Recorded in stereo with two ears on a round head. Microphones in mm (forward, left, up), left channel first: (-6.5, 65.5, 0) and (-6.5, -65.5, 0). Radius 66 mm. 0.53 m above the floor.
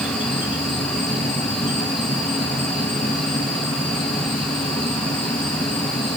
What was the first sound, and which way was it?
An insect, 35° left (ahead or behind).